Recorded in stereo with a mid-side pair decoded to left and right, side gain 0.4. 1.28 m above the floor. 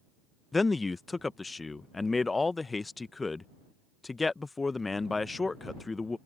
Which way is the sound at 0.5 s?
25° left.